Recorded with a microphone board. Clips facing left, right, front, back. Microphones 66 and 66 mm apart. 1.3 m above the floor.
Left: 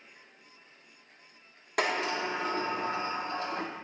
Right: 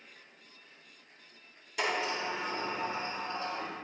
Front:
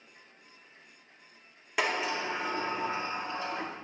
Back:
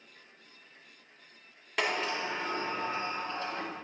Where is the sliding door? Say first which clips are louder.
Left 3 dB, front 1 dB; 80° left, 0.7 m.